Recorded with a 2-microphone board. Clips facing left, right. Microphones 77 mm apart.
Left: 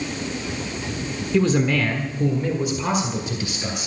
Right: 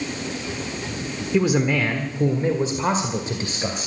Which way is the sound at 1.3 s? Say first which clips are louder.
Even; 10° right (ahead or behind).